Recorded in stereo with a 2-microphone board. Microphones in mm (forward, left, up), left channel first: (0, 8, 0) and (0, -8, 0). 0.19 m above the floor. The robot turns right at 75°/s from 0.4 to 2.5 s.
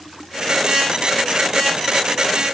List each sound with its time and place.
Only background noise.